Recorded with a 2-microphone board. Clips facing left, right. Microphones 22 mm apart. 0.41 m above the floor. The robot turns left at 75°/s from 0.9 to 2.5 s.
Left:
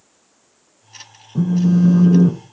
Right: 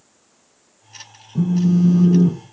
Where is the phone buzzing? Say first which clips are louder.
Left 1 dB; 145° left, 0.5 m; by 2.4 s 65° left, 0.5 m.